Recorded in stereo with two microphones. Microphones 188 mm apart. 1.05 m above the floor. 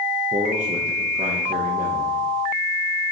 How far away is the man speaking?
About 0.9 m.